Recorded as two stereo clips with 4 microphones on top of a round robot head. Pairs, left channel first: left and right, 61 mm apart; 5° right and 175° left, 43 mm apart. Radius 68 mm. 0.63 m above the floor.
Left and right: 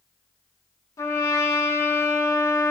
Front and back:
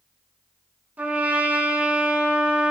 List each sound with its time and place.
1.0 s a trumpet: 125° left, 3 m